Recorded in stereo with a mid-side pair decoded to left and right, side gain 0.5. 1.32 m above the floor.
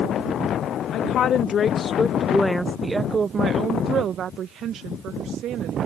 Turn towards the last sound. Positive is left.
turn(degrees=-70)